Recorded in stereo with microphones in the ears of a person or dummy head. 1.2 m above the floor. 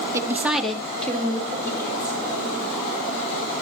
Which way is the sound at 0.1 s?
20° right (ahead or behind).